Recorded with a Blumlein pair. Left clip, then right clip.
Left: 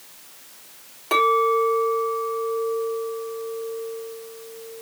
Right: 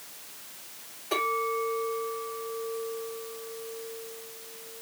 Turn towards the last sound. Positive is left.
turn(degrees=55)